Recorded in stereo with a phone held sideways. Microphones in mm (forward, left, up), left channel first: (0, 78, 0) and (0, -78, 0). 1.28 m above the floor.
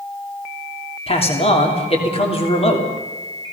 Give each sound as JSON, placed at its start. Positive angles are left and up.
{"t": 1.1, "sound": "a man speaking", "side_deg": 40, "distance_m": 3.0}